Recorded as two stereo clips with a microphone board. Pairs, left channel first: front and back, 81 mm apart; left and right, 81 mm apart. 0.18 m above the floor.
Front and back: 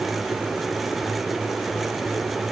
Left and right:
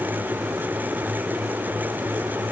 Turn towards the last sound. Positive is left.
No sound to turn to.